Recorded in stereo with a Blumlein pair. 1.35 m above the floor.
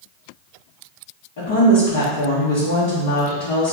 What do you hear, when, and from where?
1.4 s a woman speaking: 50° left, 1.7 m